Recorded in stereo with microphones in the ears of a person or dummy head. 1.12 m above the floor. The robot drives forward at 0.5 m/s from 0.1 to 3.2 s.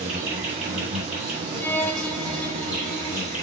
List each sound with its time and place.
0.0 s an insect: 10° right (ahead or behind), 3.5 m; by 3.4 s 5° right (ahead or behind), 5 m
1.6 s a violin: 15° left (ahead or behind), 0.5 m; by 3.3 s 5° left (ahead or behind), 1.3 m